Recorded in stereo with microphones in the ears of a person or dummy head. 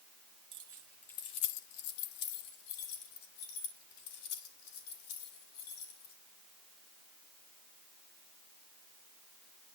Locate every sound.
0.5 s keys jangling: 25° right (ahead or behind), 0.6 m; by 6.1 s 85° left, 3.5 m